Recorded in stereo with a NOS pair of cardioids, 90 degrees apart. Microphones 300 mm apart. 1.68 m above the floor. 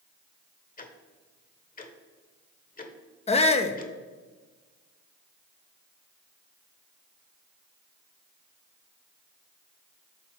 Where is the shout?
20° left, 0.5 m.